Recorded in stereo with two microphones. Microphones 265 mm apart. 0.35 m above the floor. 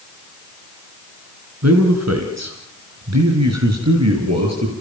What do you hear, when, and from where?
1.6 s a man speaking: 75° right (ahead or behind), 4.5 m